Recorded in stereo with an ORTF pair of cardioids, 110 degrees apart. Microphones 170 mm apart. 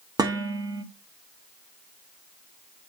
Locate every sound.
0.2 s dishes clattering: 25° right, 1.7 m